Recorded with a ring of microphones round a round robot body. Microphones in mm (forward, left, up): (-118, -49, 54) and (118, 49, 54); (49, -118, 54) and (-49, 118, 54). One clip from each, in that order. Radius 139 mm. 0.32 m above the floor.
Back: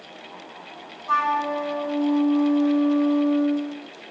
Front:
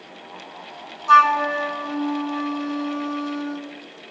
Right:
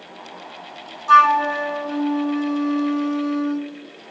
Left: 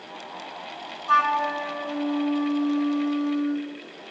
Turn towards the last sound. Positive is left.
turn(degrees=0)